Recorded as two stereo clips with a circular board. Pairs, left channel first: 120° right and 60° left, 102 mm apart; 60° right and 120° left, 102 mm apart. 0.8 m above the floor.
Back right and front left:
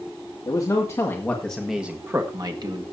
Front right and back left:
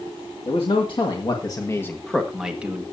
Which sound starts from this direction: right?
A man speaking, at 0.5 s.